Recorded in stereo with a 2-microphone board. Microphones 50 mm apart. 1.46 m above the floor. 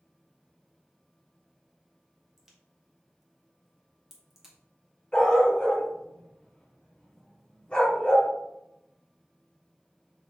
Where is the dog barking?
15° left (ahead or behind), 2.5 m.